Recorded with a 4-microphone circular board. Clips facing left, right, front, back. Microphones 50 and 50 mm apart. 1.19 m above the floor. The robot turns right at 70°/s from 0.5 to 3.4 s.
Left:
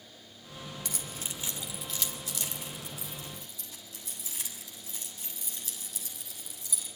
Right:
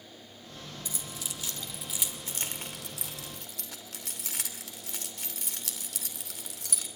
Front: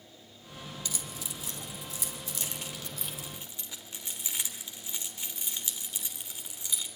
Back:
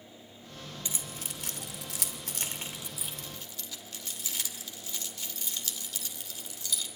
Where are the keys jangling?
115° left, 2.5 m; by 6.9 s 70° right, 2.5 m.